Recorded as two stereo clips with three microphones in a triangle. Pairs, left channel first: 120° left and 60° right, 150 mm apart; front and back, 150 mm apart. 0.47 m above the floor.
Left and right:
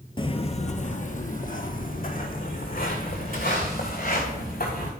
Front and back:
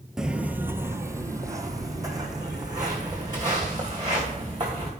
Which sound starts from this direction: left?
Footsteps, at 0.2 s.